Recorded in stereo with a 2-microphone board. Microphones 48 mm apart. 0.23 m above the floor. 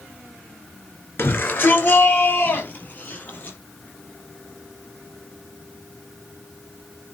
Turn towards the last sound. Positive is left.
turn(degrees=40)  # may be behind; listen again after turning